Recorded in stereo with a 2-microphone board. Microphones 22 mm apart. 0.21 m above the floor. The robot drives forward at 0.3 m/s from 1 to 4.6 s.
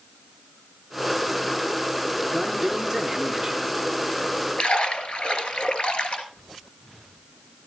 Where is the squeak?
I don't hear a squeak.